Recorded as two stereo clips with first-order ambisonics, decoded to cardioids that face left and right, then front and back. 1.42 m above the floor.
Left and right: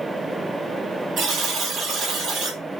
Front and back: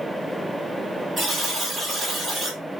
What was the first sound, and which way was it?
A buzzer, 100° right.